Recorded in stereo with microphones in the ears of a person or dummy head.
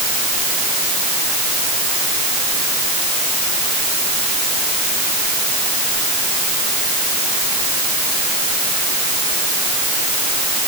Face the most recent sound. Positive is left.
No sound to turn to.